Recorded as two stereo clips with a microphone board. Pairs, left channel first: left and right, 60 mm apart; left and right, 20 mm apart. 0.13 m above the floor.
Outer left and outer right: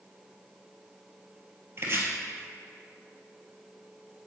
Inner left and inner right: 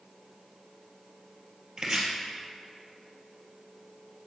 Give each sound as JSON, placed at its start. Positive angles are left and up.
{"t": 1.8, "sound": "chopping", "side_deg": -45, "distance_m": 1.9}